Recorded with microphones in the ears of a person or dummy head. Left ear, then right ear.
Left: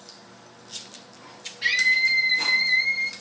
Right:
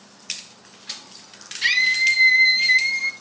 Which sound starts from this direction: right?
A scream, at 1.6 s.